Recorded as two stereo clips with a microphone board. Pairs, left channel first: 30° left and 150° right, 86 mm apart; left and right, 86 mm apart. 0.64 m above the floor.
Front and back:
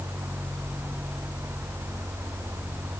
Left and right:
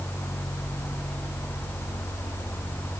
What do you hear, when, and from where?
Only background noise.